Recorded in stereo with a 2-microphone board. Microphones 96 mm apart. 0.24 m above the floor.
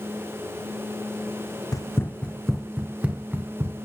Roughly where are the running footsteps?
Left.